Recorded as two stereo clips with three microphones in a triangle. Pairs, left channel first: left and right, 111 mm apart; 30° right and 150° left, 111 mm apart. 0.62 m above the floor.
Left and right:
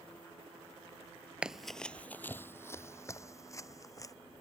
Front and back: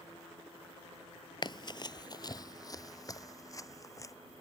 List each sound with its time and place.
1.4 s running footsteps: 10° right; by 4.1 s 30° left